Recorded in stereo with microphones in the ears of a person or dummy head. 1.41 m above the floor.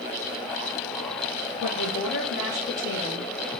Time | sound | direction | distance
1.6 | a woman speaking | 45° left (ahead or behind) | 1.2 m